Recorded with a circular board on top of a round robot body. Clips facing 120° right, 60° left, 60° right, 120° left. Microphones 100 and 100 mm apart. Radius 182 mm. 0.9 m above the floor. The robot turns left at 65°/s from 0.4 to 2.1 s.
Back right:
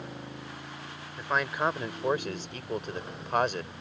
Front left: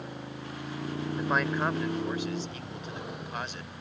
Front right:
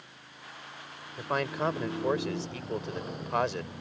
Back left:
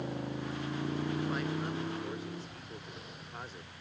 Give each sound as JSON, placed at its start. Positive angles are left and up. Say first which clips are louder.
{"t": 0.0, "sound": "a motorcycle", "louder": "front left 1 dB, back left 15 dB", "azimuth_deg": 145}
{"t": 1.2, "sound": "a man speaking", "louder": "even, front right 3 dB", "azimuth_deg": -15}